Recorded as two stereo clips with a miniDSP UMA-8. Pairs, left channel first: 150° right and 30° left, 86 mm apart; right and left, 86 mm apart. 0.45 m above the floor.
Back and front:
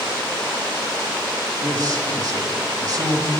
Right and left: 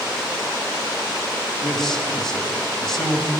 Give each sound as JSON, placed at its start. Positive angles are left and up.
{"t": 1.6, "sound": "a man speaking", "azimuth_deg": -5, "distance_m": 2.5}